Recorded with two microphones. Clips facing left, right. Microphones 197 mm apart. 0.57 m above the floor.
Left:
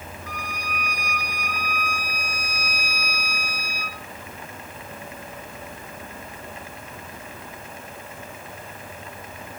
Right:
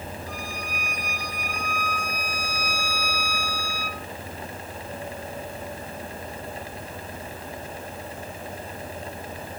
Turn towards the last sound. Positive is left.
turn(degrees=80)